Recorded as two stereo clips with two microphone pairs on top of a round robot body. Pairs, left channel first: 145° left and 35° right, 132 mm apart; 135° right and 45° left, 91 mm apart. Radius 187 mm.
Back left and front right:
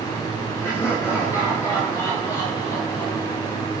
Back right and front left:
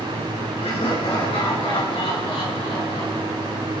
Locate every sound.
0.6 s laughter: 145° right, 10 m; by 3.7 s 155° right, 10.5 m